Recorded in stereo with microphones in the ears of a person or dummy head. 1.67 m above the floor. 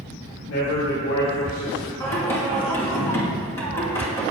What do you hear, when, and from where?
0.5 s a man speaking: 70° left (ahead or behind), 2 m
2.0 s singing: 15° left (ahead or behind), 1.6 m